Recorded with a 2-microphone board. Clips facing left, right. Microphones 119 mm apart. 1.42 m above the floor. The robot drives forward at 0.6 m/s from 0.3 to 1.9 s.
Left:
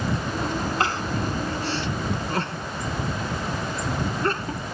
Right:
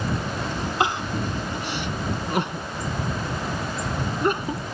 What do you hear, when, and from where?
0.8 s crying: 15° right (ahead or behind)